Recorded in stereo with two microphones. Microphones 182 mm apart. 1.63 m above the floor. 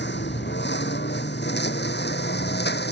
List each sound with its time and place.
0.0 s a lawn mower: 70° left (ahead or behind); by 2.9 s 65° left (ahead or behind)